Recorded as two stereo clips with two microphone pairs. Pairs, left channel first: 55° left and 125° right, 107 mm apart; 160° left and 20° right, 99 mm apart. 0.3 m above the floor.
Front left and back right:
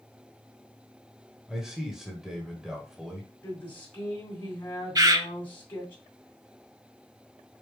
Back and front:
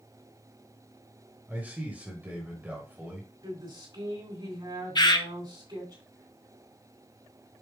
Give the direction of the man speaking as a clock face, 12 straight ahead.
2 o'clock.